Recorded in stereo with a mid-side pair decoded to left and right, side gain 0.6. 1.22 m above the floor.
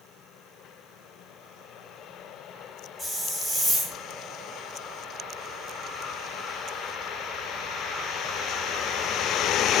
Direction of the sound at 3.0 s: 20° right.